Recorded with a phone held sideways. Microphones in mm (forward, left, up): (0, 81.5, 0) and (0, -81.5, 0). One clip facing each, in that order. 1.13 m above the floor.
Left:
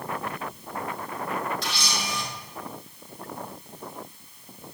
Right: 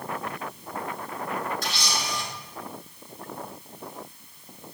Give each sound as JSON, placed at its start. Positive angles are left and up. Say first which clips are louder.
{"t": 1.6, "sound": "a camera shutter", "louder": "even", "side_deg": -45, "distance_m": 3.5}